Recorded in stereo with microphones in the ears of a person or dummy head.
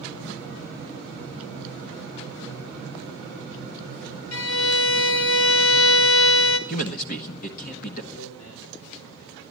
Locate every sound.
4.3 s a violin: 90° left, 1.3 m
6.7 s a man speaking: 50° left (ahead or behind), 1.1 m
8.1 s a man speaking: 70° left (ahead or behind), 4 m